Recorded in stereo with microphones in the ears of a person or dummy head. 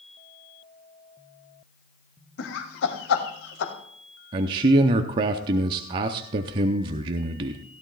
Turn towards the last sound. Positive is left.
turn(degrees=-30)  # may be behind; listen again after turning